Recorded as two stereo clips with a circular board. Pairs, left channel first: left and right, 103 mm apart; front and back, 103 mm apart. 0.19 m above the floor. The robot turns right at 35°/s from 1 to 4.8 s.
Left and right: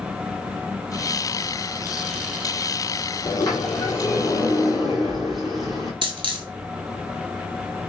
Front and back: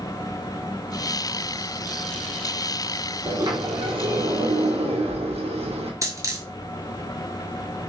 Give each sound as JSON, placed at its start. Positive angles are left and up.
{"t": 3.2, "sound": "a sliding door", "azimuth_deg": 125, "distance_m": 1.2}
{"t": 6.0, "sound": "a dropped coin", "azimuth_deg": -120, "distance_m": 0.9}